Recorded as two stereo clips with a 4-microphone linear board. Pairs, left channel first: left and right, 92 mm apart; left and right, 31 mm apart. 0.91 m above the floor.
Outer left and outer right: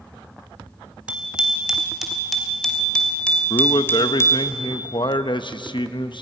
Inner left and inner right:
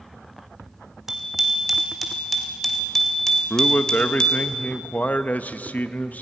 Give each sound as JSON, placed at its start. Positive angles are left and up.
{"t": 1.1, "sound": "a bicycle bell", "side_deg": -15, "distance_m": 3.0}
{"t": 3.5, "sound": "a man speaking", "side_deg": 60, "distance_m": 0.8}